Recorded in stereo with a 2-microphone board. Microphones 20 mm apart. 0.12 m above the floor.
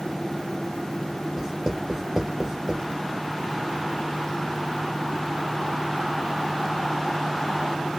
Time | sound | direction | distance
1.4 | writing | 30° right (ahead or behind) | 3.5 m